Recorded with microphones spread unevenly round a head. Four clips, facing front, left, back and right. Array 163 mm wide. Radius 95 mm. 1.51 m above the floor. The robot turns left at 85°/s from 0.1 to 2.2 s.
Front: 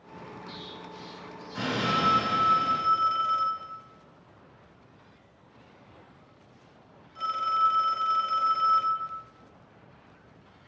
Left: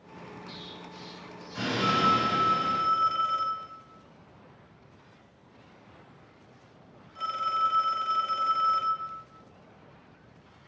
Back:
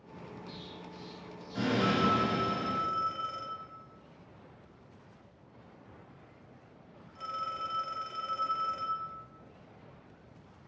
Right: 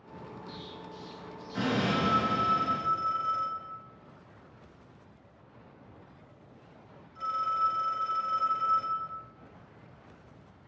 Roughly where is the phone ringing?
Left.